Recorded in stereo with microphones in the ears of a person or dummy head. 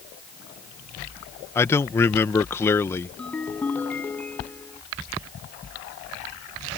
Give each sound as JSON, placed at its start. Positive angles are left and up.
{"t": 1.6, "sound": "a man speaking", "side_deg": 15}
{"t": 3.2, "sound": "a ringtone", "side_deg": 10}